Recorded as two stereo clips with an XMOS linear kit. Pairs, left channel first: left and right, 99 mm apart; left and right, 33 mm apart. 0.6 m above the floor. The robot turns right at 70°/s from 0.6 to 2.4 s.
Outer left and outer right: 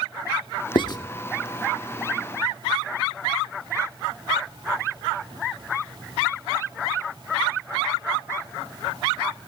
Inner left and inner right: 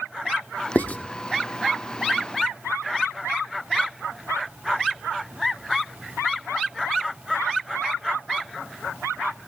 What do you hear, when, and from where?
0.8 s writing: 50° left (ahead or behind), 0.8 m; by 1.0 s 45° left (ahead or behind), 0.8 m